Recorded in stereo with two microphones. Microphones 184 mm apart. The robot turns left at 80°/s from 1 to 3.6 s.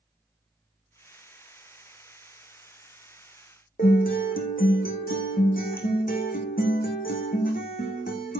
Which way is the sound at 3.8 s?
50° left (ahead or behind).